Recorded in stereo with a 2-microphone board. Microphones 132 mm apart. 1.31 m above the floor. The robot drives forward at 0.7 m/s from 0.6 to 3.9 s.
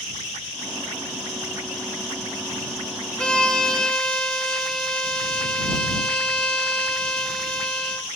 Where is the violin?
10° left (ahead or behind), 0.6 m; by 8.1 s 5° left (ahead or behind), 1.1 m.